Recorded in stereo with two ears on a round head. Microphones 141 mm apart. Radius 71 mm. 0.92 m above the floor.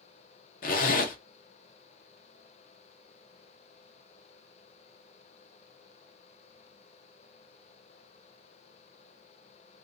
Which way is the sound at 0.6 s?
60° left (ahead or behind).